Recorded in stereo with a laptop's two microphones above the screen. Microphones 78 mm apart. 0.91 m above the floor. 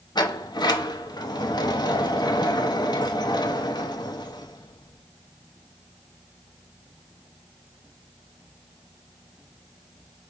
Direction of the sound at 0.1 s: 65° left (ahead or behind).